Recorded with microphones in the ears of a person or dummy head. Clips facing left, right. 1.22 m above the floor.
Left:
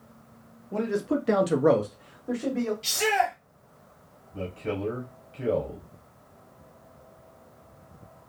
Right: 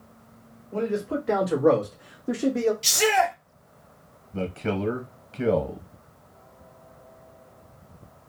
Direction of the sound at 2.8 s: 55° right (ahead or behind).